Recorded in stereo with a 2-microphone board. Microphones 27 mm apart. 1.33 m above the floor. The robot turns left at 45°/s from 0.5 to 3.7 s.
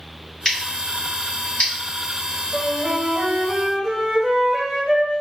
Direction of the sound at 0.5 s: 10° left (ahead or behind).